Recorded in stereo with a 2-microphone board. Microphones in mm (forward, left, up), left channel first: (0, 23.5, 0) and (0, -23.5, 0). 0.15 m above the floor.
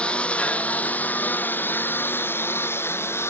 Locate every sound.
0.0 s a lawn mower: 20° left (ahead or behind); by 3.3 s 55° left (ahead or behind)